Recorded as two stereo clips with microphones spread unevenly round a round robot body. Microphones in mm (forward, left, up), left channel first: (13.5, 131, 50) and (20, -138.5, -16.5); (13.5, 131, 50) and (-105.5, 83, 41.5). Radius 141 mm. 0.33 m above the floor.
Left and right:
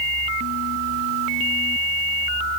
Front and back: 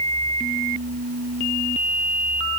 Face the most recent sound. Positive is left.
No sound to turn to.